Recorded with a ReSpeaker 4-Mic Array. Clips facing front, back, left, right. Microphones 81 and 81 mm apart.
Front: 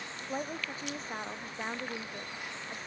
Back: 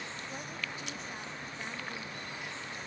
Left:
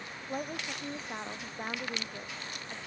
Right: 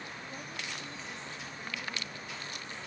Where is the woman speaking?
55° left.